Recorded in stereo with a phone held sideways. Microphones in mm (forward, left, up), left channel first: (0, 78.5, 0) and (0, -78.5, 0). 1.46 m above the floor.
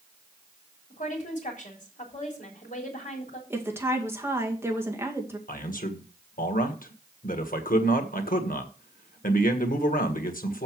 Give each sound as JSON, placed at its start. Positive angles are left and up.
{"t": 0.9, "sound": "a woman speaking", "side_deg": 50, "distance_m": 3.5}
{"t": 3.5, "sound": "a woman speaking", "side_deg": -15, "distance_m": 2.0}
{"t": 5.5, "sound": "a man speaking", "side_deg": 60, "distance_m": 1.5}